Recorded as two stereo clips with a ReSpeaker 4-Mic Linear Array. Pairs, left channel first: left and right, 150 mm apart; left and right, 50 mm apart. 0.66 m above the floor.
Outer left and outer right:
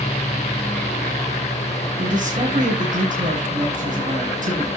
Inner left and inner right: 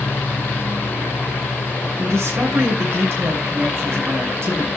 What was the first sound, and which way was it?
A man speaking, 60° right (ahead or behind).